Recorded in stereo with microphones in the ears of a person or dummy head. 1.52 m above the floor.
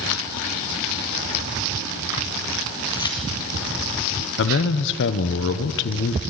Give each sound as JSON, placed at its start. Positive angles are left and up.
{"t": 2.9, "sound": "keys jangling", "side_deg": 25, "distance_m": 1.7}
{"t": 4.4, "sound": "a man speaking", "side_deg": 55, "distance_m": 0.9}